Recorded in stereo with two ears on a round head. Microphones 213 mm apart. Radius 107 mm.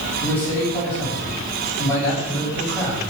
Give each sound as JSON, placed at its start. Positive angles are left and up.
{"t": 0.2, "sound": "a man speaking", "side_deg": 0, "distance_m": 7.0}